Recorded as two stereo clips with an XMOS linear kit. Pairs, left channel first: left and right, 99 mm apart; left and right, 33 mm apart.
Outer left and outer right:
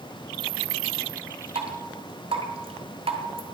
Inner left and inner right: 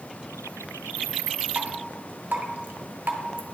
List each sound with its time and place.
1.6 s dripping: 80° right, 0.9 m